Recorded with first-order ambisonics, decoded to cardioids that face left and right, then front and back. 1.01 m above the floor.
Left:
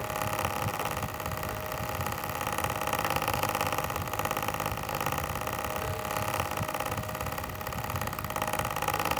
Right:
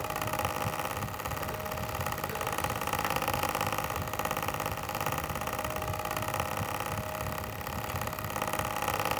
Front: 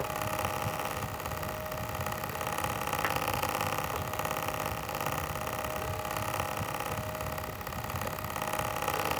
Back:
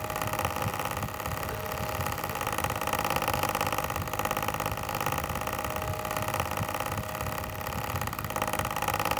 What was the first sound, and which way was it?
Only background noise.